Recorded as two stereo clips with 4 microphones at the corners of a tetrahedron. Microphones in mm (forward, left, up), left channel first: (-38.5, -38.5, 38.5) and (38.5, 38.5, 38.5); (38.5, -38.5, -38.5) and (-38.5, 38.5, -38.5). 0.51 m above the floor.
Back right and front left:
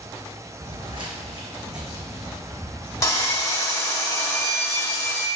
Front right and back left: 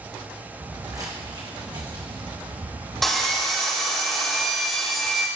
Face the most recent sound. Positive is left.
turn(degrees=-130)